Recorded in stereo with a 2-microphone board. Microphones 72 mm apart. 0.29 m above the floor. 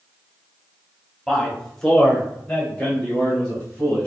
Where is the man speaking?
5° left (ahead or behind), 1.4 m; by 4.1 s 15° left (ahead or behind), 2.5 m.